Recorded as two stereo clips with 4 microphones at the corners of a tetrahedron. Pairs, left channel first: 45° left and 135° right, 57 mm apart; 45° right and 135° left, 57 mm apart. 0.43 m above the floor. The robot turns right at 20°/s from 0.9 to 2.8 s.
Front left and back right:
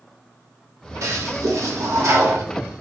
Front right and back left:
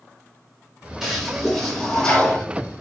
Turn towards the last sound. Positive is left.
turn(degrees=-105)